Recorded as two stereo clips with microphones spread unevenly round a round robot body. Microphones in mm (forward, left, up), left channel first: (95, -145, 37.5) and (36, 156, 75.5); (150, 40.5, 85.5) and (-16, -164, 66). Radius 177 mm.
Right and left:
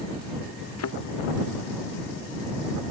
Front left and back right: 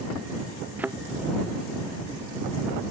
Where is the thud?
45° right.